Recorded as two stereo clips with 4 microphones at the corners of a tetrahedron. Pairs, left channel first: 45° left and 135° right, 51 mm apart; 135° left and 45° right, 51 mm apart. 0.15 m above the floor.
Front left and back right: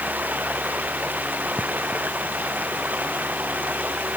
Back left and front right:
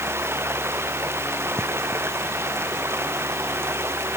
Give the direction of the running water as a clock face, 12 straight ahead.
3 o'clock.